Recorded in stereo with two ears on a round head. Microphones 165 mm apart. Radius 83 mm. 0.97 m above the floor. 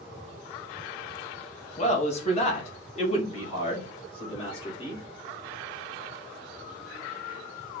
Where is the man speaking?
35° left (ahead or behind), 1.0 m; by 5.0 s 30° left (ahead or behind), 3 m.